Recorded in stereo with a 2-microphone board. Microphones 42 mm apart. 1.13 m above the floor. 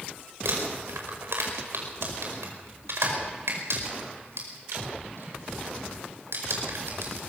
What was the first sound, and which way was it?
Crumpling, 80° right.